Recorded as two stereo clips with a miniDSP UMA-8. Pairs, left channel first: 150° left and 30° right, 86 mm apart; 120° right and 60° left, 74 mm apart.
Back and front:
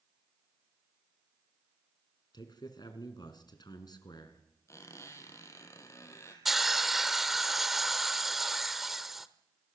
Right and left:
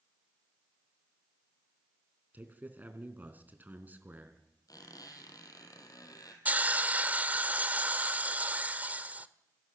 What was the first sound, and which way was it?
A man speaking, 125° left.